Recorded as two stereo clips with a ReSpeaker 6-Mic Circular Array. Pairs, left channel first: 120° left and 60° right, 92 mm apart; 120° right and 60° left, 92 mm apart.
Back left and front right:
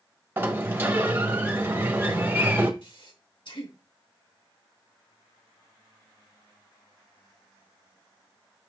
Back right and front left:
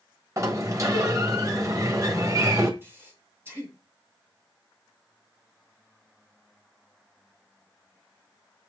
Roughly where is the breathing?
Behind left.